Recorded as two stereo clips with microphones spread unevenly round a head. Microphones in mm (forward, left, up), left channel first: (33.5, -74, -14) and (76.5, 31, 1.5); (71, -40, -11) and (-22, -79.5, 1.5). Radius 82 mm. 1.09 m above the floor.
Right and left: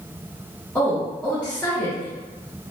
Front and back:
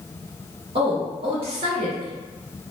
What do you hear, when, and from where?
0.8 s a woman speaking: 175° left, 0.7 m